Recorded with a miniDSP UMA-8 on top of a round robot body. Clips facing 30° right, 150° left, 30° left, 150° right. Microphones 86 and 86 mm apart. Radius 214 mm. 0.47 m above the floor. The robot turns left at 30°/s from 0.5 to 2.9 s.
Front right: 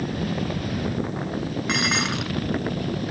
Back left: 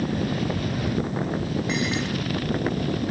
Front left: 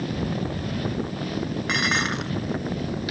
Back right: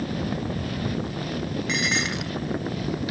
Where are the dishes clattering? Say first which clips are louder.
Front right 4 dB, front left 3 dB; 5° right; by 2.3 s 25° right.